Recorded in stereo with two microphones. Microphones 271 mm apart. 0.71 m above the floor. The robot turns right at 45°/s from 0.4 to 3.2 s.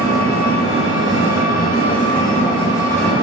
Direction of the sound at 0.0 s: 60° left.